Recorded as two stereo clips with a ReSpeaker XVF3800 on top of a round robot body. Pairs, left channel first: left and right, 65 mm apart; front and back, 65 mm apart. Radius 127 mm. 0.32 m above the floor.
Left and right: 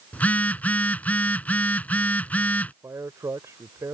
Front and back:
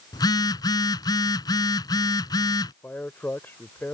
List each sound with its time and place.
0.1 s a phone buzzing: 25° left
2.8 s a man speaking: 55° right